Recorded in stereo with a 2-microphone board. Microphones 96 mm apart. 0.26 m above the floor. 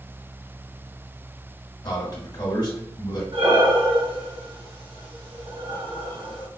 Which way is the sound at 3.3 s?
75° right (ahead or behind).